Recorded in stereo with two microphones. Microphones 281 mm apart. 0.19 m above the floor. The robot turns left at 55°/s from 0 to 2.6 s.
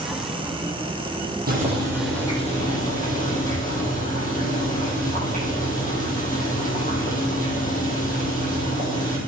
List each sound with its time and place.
1.5 s boiling: 145° right, 3.5 m; by 9.2 s 150° left, 3.5 m